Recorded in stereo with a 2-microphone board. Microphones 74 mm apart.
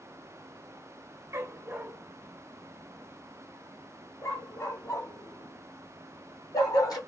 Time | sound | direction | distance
1.3 | a dog barking | 40° right (ahead or behind) | 1.0 m